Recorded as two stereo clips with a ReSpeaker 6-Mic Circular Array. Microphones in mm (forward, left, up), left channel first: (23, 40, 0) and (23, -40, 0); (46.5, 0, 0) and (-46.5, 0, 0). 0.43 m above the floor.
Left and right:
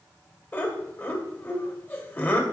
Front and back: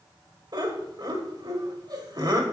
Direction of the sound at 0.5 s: 150° left.